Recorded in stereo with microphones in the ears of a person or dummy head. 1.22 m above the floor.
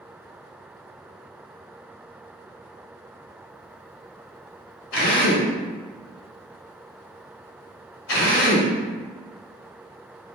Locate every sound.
4.9 s a drill: 75° left (ahead or behind), 1.3 m